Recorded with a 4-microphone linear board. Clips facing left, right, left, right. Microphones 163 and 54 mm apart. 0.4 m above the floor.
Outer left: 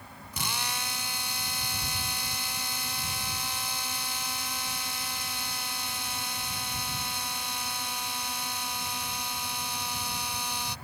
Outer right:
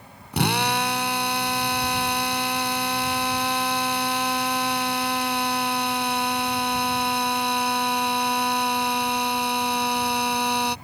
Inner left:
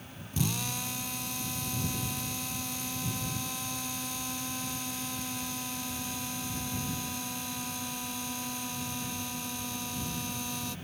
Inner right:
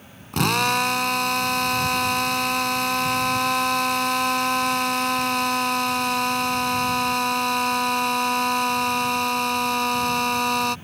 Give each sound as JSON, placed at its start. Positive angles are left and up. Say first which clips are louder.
{"t": 0.3, "sound": "a drill", "louder": "outer right 14 dB, inner right 14 dB", "side_deg": -70}